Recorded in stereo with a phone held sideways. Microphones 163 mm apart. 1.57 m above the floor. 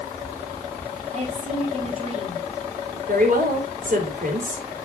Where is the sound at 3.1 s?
60° right (ahead or behind), 4 m.